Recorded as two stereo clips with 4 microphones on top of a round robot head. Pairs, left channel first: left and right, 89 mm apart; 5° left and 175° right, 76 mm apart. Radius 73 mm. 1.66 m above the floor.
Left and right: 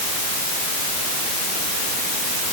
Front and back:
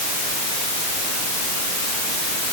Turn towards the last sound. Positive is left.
No sound to turn to.